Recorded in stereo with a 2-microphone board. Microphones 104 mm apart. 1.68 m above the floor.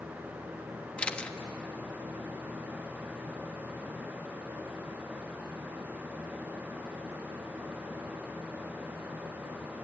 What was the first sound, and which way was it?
A camera shutter, 10° left (ahead or behind).